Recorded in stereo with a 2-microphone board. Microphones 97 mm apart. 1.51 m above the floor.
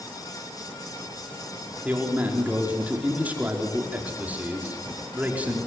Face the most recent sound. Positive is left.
turn(degrees=-15)  # may be behind; listen again after turning